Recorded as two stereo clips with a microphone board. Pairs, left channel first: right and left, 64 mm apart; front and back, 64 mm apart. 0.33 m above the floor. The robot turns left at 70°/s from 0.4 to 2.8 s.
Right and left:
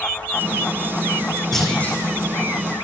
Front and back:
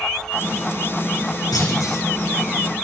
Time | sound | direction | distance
1.5 | a clunk | 5° right | 6.5 m